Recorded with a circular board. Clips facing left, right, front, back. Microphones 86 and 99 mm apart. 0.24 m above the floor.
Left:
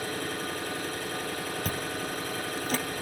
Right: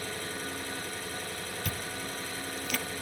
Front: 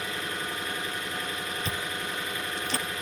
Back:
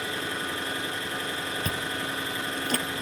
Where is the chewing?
140° left, 2 m.